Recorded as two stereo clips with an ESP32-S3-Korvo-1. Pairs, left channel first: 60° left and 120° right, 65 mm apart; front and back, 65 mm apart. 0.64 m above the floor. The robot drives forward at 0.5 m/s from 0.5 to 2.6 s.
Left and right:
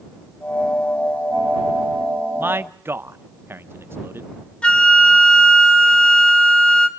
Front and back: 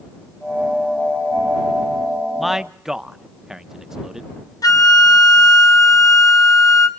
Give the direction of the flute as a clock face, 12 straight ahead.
12 o'clock.